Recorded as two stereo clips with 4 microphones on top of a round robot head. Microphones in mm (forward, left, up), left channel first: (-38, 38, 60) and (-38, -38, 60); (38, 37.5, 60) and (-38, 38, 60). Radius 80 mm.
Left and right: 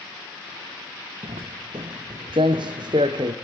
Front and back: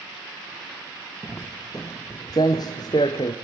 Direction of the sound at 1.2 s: 70° right.